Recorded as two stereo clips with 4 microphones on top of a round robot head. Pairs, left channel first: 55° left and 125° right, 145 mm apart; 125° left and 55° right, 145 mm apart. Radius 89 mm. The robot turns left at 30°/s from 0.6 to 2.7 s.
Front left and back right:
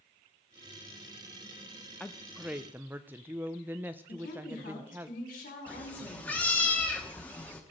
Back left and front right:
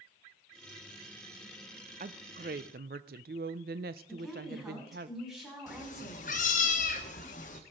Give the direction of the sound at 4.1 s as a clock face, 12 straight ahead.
11 o'clock.